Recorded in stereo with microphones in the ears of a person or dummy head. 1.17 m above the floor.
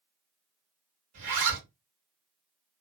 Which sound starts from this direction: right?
A zipper, at 1.1 s.